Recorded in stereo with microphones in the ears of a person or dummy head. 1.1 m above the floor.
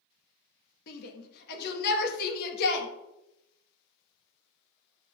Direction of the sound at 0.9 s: 55° left (ahead or behind).